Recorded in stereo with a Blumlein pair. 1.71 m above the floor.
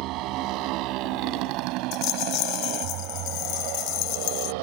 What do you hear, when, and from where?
0.0 s a motorcycle: 40° right; by 4.6 s 45° right
1.9 s a rattle: 40° left